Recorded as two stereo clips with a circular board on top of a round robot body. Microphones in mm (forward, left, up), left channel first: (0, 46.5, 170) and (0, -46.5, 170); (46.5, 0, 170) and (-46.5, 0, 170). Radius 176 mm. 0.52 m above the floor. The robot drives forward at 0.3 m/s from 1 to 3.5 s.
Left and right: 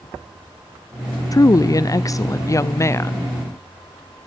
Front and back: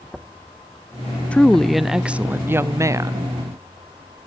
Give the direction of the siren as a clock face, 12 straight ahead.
No siren in this recording.